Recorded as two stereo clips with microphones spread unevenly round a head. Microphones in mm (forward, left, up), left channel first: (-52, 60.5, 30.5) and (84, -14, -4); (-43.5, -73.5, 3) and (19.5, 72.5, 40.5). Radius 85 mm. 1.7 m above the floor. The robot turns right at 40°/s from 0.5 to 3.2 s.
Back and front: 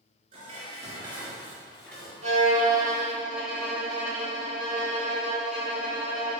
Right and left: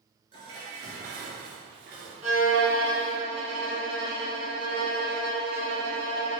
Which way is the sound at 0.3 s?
15° left.